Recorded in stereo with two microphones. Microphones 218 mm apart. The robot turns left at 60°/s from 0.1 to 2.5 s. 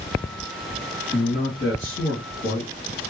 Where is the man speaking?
150° left, 2.5 m; by 2.7 s 65° left, 2.5 m.